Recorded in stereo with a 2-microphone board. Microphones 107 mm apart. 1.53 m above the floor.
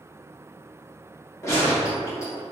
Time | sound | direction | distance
1.4 | a gunshot | 30° left (ahead or behind) | 1.6 m